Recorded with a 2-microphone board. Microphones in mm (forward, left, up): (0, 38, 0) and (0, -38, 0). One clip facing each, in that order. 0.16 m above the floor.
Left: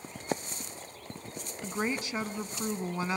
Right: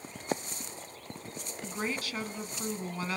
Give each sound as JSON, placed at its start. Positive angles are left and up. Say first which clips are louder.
{"t": 1.6, "sound": "a woman speaking", "louder": "left 3 dB", "side_deg": 20, "distance_m": 1.1}